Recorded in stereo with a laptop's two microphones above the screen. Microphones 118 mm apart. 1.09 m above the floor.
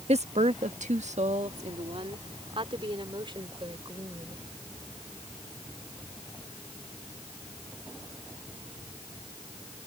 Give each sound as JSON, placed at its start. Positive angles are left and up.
{"t": 0.1, "sound": "a woman speaking", "side_deg": -65}